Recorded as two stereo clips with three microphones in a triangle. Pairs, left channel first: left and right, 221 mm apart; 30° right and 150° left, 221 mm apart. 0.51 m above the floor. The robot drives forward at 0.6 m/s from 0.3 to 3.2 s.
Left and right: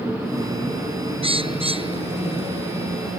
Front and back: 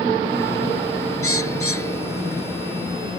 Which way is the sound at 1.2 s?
25° right.